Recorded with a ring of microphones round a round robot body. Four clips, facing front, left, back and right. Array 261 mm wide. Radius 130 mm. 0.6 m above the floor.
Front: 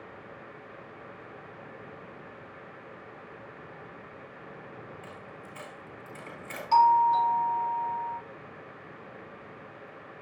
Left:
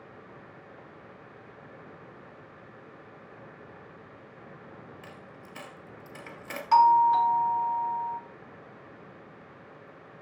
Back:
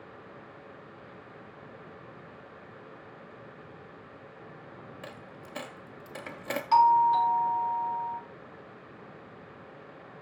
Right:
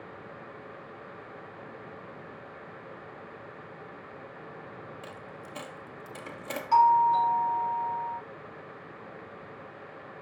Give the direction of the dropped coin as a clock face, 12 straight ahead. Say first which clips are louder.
Right 4 dB, even; 6 o'clock.